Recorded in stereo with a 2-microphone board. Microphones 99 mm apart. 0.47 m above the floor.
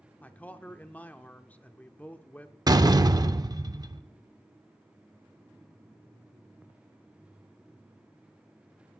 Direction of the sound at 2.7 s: 40° right (ahead or behind).